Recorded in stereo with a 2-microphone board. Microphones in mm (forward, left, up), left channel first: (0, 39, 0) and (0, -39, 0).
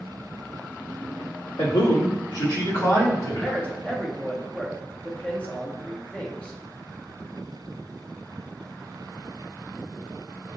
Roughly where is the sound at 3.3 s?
Centre.